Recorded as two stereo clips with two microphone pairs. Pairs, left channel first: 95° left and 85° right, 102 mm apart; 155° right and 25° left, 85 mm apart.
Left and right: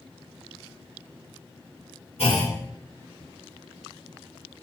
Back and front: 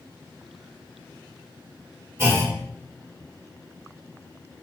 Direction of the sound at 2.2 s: 85° left.